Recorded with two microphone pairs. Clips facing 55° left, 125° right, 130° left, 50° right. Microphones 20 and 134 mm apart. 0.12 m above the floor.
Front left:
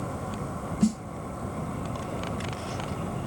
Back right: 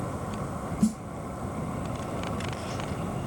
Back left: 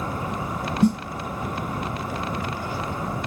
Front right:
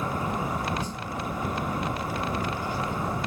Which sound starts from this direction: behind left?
A snare drum, at 0.8 s.